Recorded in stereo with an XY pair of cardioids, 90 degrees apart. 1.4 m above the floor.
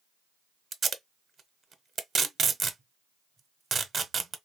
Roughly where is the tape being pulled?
Ahead right.